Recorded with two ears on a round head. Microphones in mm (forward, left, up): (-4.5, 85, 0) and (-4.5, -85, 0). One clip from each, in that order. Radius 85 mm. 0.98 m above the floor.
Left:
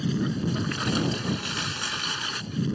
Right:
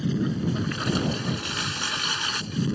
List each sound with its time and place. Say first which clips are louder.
0.0 s a lawn mower: right 1 dB; 25° left (ahead or behind); by 2.8 s 20° right (ahead or behind)